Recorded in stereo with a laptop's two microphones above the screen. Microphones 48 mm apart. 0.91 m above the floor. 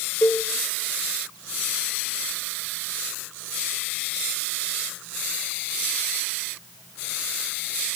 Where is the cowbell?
40° left (ahead or behind), 1.0 m.